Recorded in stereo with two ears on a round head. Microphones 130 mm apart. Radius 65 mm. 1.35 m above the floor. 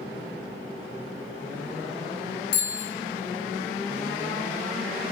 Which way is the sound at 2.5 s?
80° left.